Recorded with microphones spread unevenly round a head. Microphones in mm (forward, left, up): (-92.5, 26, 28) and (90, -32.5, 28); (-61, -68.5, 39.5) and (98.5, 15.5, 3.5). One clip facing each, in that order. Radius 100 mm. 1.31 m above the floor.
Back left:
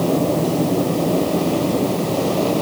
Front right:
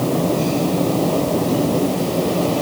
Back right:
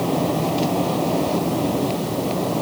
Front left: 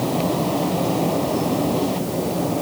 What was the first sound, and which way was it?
Only background noise.